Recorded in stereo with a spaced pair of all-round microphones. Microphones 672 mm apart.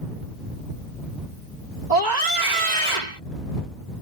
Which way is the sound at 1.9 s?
80° right.